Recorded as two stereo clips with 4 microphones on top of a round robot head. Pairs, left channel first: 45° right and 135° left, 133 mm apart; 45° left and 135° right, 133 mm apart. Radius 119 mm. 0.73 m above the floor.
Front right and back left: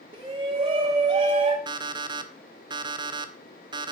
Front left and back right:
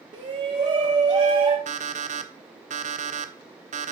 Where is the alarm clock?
165° right, 1.0 m.